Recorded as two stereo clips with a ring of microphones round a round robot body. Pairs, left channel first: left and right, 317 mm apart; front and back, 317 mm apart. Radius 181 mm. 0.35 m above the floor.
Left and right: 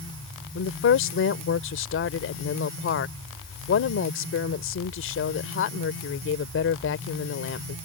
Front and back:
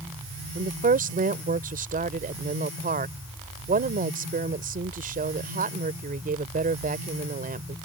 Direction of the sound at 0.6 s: 125° left.